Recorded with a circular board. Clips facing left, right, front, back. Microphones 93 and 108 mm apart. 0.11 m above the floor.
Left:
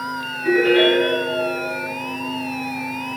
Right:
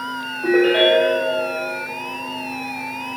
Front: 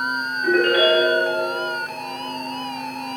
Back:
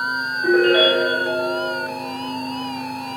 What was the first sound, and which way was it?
A ringtone, 115° right.